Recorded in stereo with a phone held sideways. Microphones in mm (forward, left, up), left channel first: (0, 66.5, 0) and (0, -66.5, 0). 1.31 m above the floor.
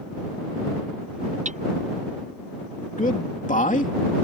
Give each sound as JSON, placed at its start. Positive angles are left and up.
{"t": 1.4, "sound": "hammering", "side_deg": -65}
{"t": 3.0, "sound": "a man speaking", "side_deg": 75}